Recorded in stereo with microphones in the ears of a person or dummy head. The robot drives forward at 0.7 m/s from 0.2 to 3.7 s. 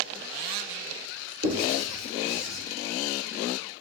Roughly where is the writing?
Right.